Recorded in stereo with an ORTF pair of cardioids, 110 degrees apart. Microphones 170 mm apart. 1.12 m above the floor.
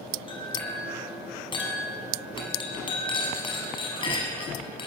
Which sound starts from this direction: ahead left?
A clink, at 0.3 s.